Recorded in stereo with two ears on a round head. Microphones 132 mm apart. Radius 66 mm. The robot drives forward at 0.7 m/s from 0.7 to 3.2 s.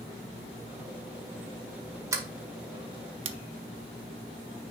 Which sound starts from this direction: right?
A sliding door, at 2.1 s.